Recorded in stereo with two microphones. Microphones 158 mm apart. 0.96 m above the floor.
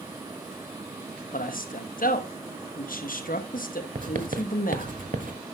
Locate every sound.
1.3 s a man speaking: 60° left (ahead or behind), 1.1 m
4.0 s writing: 55° right (ahead or behind), 1.1 m